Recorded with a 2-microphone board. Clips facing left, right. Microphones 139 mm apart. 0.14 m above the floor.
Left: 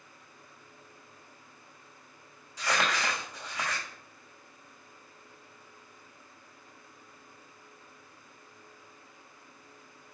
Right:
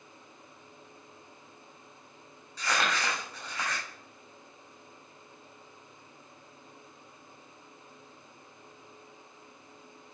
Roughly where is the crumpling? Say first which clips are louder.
Even; centre.